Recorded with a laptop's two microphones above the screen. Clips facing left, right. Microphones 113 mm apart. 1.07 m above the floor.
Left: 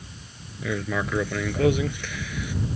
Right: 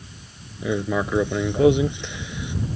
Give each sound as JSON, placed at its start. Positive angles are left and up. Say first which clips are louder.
{"t": 0.6, "sound": "writing", "louder": "right 4 dB", "side_deg": -20}